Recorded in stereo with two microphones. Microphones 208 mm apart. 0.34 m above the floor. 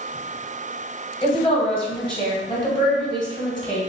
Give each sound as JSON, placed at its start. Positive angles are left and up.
{"t": 1.2, "sound": "a woman speaking", "side_deg": 25, "distance_m": 1.3}